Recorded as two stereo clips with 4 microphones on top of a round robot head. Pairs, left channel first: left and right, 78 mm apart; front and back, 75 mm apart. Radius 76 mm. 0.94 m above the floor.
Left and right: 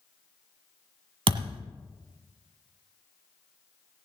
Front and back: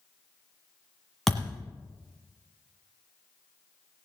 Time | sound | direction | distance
1.3 | a thud | 90° right | 1.4 m